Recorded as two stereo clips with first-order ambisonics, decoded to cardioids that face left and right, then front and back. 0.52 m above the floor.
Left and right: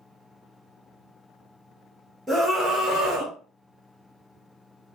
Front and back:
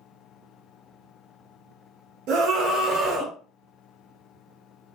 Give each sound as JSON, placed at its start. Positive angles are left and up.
{"t": 2.3, "sound": "a scream", "azimuth_deg": -170, "distance_m": 1.2}